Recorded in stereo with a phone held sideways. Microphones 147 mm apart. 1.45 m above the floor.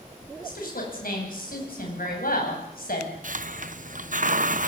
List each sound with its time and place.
0.4 s a woman speaking: 80° left, 10 m
3.2 s a hiss: 60° right (ahead or behind), 0.8 m